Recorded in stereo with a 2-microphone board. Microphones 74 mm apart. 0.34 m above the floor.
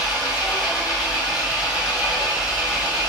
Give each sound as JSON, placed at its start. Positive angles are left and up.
{"t": 0.0, "sound": "an engine running", "side_deg": -10, "distance_m": 1.4}